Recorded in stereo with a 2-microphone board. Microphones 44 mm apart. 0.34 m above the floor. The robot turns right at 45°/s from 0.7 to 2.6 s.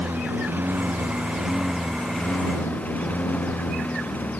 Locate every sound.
0.0 s a lawn mower: 45° right; by 4.4 s 40° left